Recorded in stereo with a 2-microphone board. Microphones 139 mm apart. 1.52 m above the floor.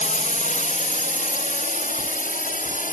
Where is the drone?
65° left (ahead or behind); by 2.9 s 75° left (ahead or behind).